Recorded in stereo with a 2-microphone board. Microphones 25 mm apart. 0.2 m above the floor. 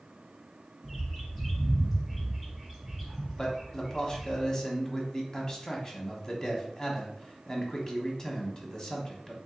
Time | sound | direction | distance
0.8 | a bird | centre (ahead or behind) | 1.9 m
3.4 | a man speaking | 30° left (ahead or behind) | 1.1 m